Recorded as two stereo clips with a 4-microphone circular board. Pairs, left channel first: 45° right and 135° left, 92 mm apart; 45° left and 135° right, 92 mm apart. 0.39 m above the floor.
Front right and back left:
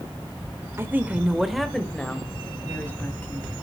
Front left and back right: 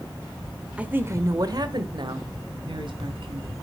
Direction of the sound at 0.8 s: 160° left.